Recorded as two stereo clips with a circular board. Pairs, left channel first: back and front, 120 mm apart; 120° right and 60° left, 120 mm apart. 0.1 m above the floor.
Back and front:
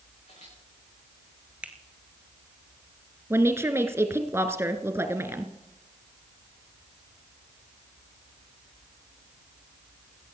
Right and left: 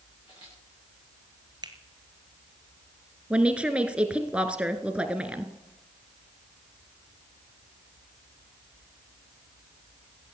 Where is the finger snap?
70° left, 1.7 m.